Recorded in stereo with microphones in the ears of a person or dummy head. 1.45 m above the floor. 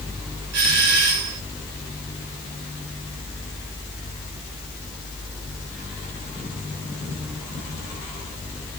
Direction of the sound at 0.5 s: 85° right.